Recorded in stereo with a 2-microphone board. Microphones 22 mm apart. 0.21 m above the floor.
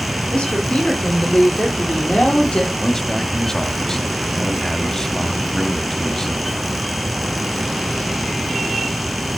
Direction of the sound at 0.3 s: 50° left (ahead or behind).